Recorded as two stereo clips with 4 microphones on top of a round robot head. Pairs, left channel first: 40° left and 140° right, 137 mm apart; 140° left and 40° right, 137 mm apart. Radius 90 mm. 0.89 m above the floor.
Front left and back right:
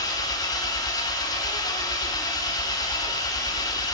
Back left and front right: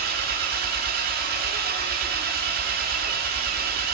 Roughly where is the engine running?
Ahead right.